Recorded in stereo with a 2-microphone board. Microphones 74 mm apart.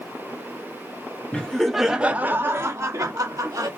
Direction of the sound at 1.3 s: 15° left (ahead or behind).